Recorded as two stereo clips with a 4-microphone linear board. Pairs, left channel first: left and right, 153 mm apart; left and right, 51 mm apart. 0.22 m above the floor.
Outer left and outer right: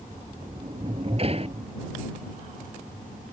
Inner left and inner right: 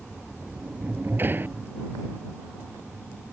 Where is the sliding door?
45° right (ahead or behind).